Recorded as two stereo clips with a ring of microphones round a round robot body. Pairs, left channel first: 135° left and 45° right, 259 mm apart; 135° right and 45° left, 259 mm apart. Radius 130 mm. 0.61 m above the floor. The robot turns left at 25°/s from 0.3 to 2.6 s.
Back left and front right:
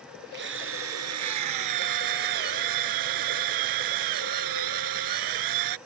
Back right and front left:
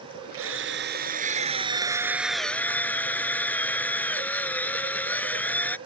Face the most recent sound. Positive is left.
turn(degrees=-50)